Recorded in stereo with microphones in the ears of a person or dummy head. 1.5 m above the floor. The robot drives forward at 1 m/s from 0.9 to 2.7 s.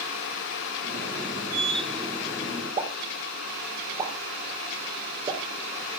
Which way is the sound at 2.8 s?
30° right (ahead or behind).